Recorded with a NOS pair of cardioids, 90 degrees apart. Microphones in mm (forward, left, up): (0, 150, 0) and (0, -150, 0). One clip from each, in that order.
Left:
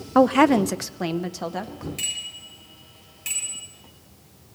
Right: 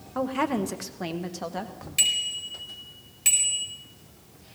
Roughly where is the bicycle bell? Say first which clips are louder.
Right 7 dB; ahead right.